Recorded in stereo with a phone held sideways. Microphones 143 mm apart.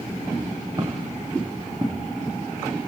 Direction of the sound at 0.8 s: 25° right (ahead or behind).